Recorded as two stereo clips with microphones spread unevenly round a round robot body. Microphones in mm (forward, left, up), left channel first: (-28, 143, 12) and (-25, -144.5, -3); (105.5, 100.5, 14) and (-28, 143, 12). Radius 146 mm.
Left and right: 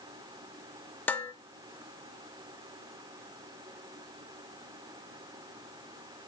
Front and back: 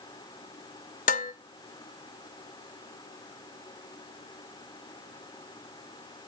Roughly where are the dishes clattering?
Ahead.